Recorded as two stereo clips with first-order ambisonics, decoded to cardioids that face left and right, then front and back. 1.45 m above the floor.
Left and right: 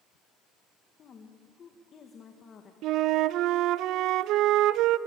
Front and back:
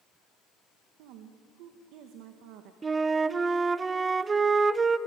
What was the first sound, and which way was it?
A woman speaking, 155° left.